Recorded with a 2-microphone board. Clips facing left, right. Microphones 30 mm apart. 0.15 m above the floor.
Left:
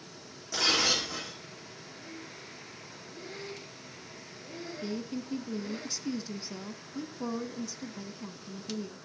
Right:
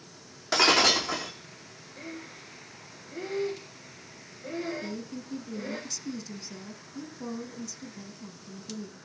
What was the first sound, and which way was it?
Breaking glass, 65° right (ahead or behind).